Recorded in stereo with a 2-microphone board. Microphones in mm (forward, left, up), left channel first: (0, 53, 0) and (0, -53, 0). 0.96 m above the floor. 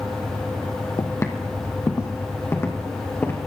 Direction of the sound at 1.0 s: 30° left (ahead or behind).